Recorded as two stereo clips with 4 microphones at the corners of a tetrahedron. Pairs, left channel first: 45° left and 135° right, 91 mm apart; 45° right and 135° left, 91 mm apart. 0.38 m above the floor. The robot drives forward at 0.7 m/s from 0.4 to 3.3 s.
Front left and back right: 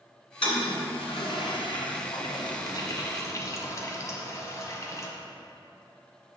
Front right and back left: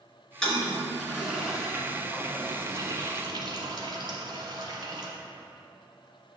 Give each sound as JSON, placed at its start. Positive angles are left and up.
{"t": 0.4, "sound": "a toilet flushing", "azimuth_deg": 35, "distance_m": 2.0}